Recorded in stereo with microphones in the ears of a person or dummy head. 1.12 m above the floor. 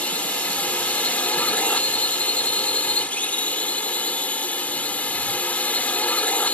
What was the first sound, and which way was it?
A drone, 5° left (ahead or behind).